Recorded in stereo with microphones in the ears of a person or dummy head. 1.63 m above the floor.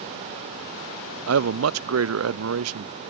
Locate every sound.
1.3 s a man speaking: 80° right